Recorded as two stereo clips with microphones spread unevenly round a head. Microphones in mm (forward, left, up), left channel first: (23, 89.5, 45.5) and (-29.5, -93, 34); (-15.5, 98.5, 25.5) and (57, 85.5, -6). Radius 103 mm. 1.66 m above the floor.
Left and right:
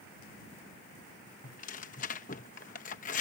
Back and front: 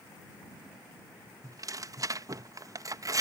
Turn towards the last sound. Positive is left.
turn(degrees=45)